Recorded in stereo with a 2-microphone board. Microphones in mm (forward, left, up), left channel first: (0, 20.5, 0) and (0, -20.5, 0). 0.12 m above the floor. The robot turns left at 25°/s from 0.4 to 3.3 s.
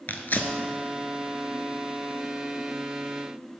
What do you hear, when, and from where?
0.1 s tearing paper: 50° left (ahead or behind), 0.6 m